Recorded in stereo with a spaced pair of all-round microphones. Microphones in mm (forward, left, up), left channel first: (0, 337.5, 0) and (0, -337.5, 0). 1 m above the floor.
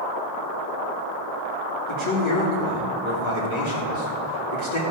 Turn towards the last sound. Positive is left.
turn(degrees=45)  # may be behind; listen again after turning